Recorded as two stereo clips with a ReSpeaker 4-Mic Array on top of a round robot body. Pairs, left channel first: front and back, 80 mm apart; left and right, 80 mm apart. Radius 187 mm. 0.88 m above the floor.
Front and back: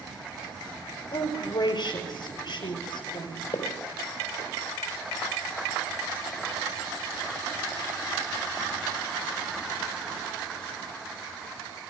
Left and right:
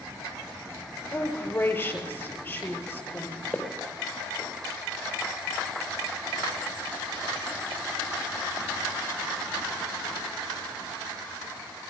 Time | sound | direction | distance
1.1 | a woman speaking | 20° left | 5 m
3.5 | footsteps | 5° left | 5 m